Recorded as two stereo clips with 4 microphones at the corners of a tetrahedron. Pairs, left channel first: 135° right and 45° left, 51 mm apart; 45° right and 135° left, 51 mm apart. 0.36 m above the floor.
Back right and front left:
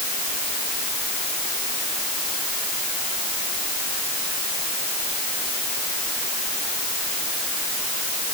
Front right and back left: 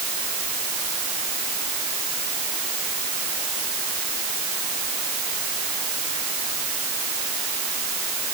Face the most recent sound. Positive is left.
No sound to turn to.